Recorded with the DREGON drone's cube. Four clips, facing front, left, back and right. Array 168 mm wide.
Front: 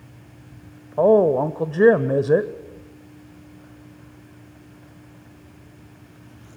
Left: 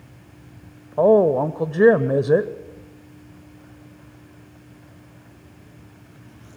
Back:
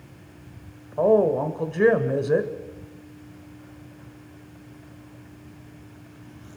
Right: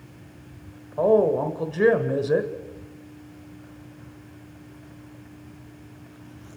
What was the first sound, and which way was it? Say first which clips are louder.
A woman speaking: left 4 dB, front 3 dB; 55° left.